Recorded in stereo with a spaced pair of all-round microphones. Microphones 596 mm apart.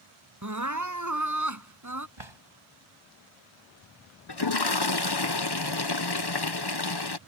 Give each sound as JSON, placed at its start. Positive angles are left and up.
{"t": 0.4, "sound": "crying", "side_deg": -30}
{"t": 2.2, "sound": "a drawer", "side_deg": -50}
{"t": 4.3, "sound": "a toilet flushing", "side_deg": 40}